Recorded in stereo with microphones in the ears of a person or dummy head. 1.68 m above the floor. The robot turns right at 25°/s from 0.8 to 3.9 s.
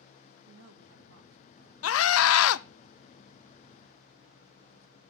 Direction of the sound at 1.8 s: 80° left.